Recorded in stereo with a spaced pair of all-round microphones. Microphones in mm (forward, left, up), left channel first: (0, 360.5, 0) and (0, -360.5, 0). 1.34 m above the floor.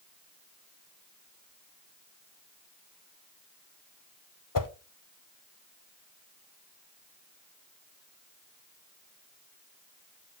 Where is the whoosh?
30° left (ahead or behind), 0.6 m.